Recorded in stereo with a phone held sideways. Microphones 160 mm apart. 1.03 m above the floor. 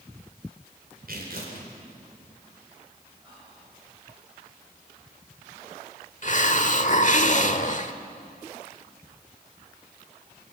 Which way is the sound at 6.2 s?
50° left (ahead or behind).